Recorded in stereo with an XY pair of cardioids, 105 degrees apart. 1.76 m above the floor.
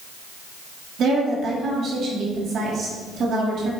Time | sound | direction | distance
1.0 | a woman speaking | 60° right | 3.5 m